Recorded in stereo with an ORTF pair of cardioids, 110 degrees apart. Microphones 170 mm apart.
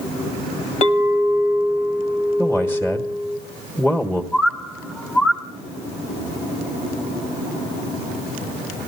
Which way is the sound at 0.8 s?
45° left.